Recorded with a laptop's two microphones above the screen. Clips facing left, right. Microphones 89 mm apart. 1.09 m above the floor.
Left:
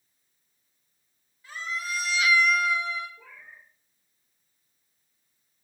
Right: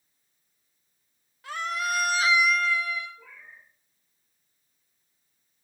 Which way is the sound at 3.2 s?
60° left (ahead or behind).